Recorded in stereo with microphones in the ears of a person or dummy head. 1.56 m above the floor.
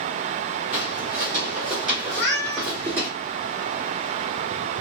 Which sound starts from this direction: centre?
Footsteps, at 0.7 s.